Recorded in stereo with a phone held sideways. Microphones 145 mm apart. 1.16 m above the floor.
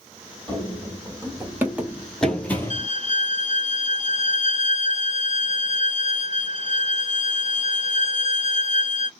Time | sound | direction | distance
0.5 | running footsteps | 30° right (ahead or behind) | 1.9 m
2.7 | a violin | 45° right (ahead or behind) | 2 m